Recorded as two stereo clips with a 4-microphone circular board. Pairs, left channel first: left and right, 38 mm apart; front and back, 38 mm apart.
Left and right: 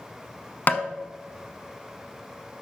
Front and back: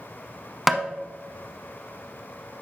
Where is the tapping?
95° left, 0.9 m.